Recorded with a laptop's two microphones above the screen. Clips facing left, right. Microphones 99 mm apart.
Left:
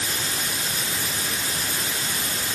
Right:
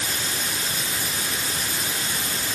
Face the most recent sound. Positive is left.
No sound to turn to.